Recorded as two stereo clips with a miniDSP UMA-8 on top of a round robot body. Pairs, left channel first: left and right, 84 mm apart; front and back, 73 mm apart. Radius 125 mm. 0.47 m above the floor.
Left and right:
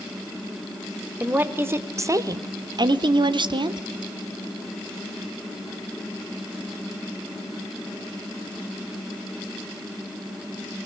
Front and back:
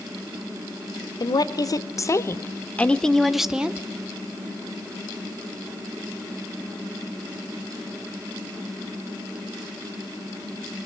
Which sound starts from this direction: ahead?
A woman speaking, at 1.2 s.